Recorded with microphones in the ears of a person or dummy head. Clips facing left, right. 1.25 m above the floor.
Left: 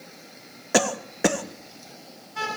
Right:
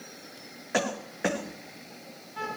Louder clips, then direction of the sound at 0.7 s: Left 6 dB; 50° left (ahead or behind).